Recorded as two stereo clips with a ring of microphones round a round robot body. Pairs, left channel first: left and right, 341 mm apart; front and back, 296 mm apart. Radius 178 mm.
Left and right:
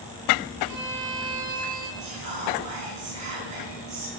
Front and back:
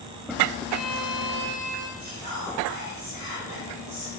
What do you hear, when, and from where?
0.7 s a violin: 130° right, 3 m
2.0 s whispering: 135° right, 5 m